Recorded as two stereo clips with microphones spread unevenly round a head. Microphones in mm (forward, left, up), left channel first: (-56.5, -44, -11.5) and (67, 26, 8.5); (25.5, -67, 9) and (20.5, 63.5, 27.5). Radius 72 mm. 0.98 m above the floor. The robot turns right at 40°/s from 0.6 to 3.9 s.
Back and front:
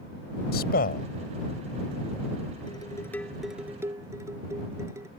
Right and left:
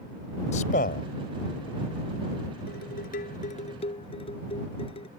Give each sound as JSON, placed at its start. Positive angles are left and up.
{"t": 0.5, "sound": "a man speaking", "azimuth_deg": -130}
{"t": 2.7, "sound": "dishes clattering", "azimuth_deg": -90}